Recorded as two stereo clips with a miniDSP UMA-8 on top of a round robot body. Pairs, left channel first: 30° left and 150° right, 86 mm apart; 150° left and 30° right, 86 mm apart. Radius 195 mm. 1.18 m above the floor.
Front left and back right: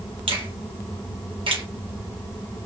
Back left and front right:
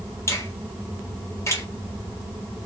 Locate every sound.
0.3 s a finger snap: 150° right, 1.8 m